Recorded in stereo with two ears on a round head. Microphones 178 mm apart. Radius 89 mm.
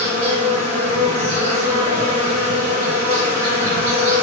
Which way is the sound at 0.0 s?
45° right (ahead or behind).